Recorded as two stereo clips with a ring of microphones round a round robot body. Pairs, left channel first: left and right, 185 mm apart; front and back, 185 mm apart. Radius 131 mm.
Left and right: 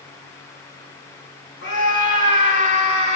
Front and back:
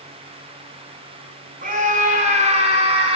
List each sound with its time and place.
1.6 s a scream: 135° left, 6.5 m; by 3.2 s 125° left, 6 m